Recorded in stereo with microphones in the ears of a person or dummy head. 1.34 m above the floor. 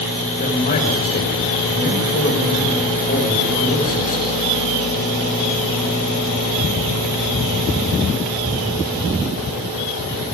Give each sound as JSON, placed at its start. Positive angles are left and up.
{"t": 0.4, "sound": "a man speaking", "side_deg": 40, "distance_m": 6.0}